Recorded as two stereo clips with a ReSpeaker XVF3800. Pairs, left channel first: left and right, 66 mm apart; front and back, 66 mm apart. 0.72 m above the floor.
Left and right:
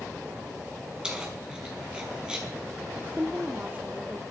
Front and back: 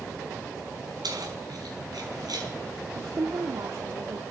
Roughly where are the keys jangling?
Behind.